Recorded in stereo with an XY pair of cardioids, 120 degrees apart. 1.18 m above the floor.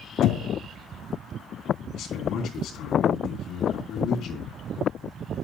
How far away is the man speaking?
About 3 m.